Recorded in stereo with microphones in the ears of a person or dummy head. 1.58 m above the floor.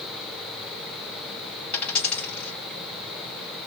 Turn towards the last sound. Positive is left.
turn(degrees=10)  # may be behind; listen again after turning